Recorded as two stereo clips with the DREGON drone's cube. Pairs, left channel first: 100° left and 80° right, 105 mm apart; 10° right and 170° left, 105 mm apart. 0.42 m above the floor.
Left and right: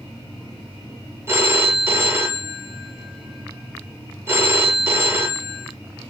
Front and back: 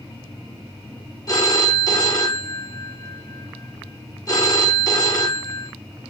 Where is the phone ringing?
35° right, 0.6 m.